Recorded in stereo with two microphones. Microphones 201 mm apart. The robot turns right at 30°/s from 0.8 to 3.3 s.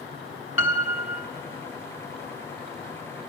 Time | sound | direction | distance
0.6 | a piano | 80° left | 1.4 m